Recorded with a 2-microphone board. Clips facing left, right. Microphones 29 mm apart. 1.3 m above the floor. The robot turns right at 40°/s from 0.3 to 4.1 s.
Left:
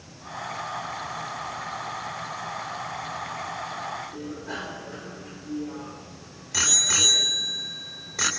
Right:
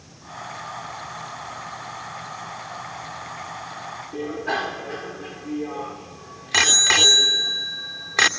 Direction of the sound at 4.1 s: 65° right (ahead or behind).